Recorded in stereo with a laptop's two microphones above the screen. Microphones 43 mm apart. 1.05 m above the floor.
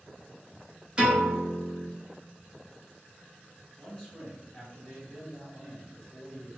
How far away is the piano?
About 1.0 m.